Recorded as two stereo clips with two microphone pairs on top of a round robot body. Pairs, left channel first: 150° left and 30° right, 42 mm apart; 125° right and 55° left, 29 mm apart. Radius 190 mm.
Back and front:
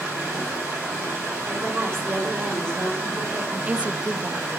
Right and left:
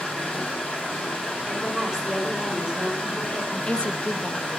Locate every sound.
0.0 s running water: 45° right, 4 m
1.5 s a woman speaking: 20° right, 5 m
3.5 s a woman speaking: 80° right, 0.5 m